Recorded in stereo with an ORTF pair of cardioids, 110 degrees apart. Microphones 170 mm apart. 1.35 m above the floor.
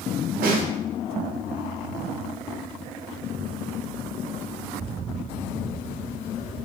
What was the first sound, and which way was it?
A snare drum, 60° right.